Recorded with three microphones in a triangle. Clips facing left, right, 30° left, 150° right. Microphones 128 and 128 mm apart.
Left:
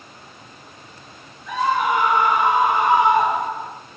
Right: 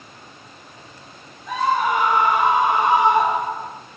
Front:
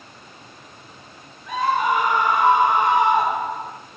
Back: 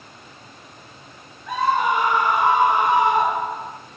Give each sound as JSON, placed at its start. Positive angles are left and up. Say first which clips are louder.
{"t": 1.5, "sound": "a scream", "louder": "even, even", "azimuth_deg": -115, "distance_m": 1.6}